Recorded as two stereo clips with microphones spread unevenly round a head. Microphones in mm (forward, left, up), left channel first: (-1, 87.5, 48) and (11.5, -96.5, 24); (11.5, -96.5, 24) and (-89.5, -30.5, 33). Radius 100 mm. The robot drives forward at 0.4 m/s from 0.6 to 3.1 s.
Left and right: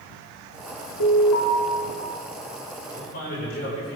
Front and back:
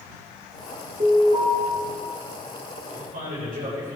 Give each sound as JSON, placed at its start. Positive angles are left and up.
{"t": 1.0, "sound": "an alarm", "azimuth_deg": 85, "distance_m": 3.0}
{"t": 2.9, "sound": "a man speaking", "azimuth_deg": 135, "distance_m": 5.5}